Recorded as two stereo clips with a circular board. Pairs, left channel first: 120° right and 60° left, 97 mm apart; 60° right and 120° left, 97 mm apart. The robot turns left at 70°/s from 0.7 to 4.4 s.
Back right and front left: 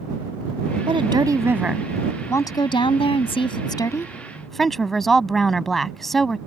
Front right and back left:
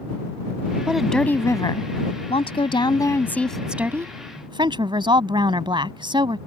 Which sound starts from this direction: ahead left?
A woman speaking, at 0.9 s.